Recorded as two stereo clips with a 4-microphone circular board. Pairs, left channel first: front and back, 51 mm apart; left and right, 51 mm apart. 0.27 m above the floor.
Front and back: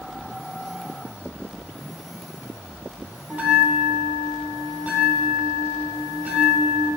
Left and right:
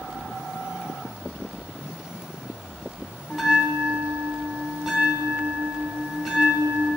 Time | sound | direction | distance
3.3 | a bell | 170° right | 1.3 m